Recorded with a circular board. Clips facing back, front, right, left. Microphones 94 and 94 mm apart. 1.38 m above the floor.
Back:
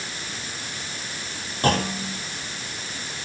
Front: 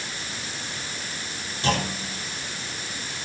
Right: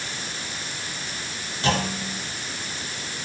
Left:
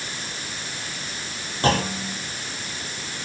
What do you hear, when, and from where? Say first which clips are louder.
1.6 s a clunk: back 3 dB, left 3 dB; 140° left, 5 m